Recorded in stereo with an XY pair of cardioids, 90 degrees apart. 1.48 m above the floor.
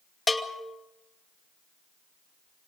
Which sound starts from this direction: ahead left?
A bell, at 0.3 s.